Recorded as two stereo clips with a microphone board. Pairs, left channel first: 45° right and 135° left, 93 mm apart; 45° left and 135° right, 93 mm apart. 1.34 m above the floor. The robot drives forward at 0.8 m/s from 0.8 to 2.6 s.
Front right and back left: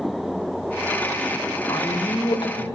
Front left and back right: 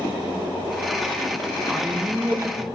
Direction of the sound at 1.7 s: 55° right.